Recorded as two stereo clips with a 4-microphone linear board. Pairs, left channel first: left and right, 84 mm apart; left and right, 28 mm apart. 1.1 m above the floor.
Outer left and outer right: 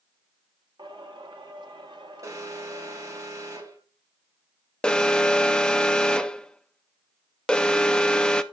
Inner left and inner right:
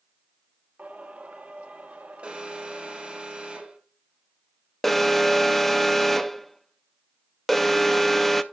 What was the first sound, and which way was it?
Singing, 60° right (ahead or behind).